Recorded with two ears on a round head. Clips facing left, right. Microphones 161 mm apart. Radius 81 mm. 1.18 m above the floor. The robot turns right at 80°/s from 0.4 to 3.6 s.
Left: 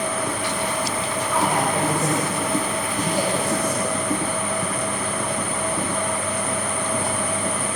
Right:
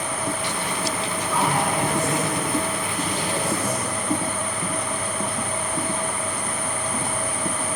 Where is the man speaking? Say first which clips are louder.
Left 1 dB; 5° left, 5.5 m; by 4.0 s 175° right, 5.5 m.